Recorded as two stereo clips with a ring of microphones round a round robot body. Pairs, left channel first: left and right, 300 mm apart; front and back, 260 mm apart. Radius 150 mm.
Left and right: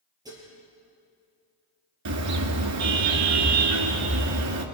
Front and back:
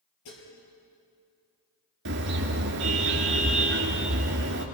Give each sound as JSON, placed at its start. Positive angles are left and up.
{"t": 0.2, "sound": "dishes clattering", "azimuth_deg": -10, "distance_m": 6.5}
{"t": 2.0, "sound": "a car horn", "azimuth_deg": -125, "distance_m": 2.5}